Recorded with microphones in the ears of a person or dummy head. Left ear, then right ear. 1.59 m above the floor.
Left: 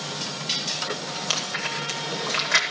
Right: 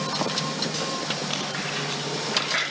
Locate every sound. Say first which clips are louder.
1.3 s chewing: left 2 dB; 85° left, 7.5 m